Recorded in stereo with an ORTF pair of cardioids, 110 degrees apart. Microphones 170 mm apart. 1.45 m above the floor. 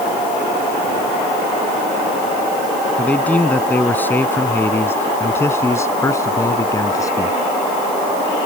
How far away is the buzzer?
I don't hear a buzzer.